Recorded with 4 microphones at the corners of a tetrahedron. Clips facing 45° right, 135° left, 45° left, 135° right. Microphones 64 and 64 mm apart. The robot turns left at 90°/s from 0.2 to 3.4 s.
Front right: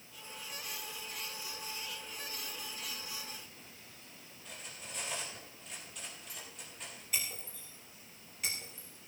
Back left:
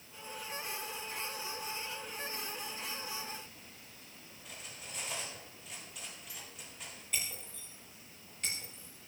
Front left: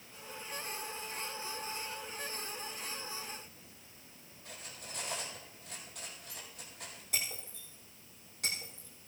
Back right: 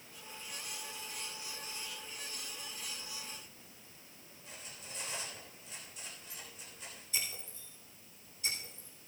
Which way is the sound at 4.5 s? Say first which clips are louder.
Front right 1 dB, front left 2 dB; 45° left.